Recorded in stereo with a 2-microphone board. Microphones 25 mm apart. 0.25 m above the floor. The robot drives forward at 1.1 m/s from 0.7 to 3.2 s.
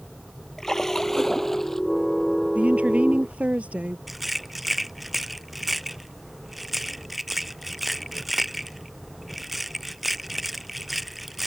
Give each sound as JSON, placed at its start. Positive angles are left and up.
{"t": 0.6, "sound": "a splash", "side_deg": 20}
{"t": 2.5, "sound": "a woman speaking", "side_deg": -70}
{"t": 4.1, "sound": "a rattle", "side_deg": 0}